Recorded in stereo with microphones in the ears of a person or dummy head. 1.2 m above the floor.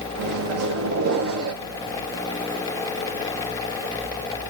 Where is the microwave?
70° right (ahead or behind), 0.8 m.